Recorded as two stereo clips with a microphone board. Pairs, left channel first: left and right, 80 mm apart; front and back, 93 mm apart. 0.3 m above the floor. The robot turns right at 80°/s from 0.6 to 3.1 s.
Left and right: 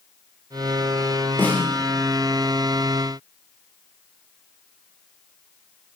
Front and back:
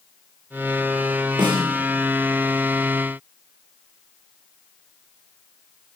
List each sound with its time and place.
1.4 s a snare drum: 155° left, 8.5 m; by 1.6 s 170° left, 8.5 m